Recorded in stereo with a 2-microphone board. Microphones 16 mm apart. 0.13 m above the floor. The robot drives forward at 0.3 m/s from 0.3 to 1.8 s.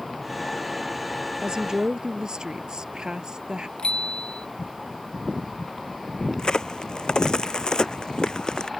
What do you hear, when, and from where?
1.4 s a woman speaking: 55° right (ahead or behind); by 3.7 s 50° right (ahead or behind)
3.8 s a bicycle bell: 70° left (ahead or behind)
6.4 s a crack: 60° left (ahead or behind)